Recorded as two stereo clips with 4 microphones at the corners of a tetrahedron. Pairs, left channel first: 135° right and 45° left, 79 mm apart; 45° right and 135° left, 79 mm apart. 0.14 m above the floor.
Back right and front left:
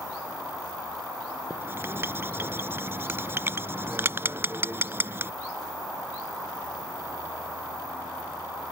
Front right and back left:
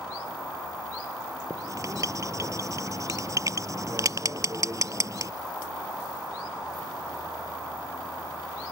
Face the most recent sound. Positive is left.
turn(degrees=100)